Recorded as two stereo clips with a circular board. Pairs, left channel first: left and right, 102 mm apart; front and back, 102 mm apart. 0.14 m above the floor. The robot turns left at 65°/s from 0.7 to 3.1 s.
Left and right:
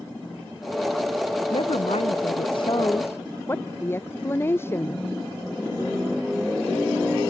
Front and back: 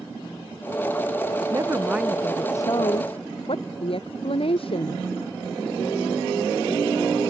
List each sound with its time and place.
1.5 s a woman speaking: 125° left; by 5.1 s 25° left